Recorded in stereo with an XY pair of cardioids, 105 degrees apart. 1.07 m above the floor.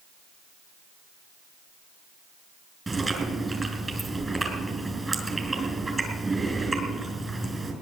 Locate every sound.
2.9 s chewing: 20° right, 4.5 m